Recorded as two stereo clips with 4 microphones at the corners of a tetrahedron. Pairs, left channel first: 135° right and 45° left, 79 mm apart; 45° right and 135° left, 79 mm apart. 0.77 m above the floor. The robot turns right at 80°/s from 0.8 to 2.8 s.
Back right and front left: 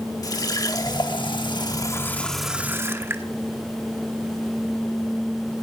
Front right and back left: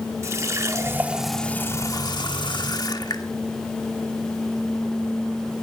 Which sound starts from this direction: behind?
A running tap, at 0.2 s.